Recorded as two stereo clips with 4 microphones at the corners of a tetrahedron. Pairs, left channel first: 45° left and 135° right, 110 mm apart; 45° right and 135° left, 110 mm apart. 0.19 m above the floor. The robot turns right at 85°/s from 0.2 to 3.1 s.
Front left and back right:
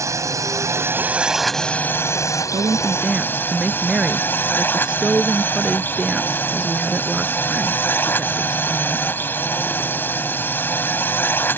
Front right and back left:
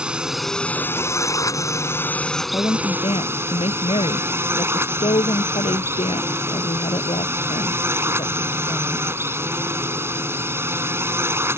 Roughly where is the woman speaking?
Right.